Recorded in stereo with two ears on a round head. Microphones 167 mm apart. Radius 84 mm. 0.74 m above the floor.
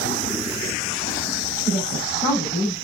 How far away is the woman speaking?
About 5.5 m.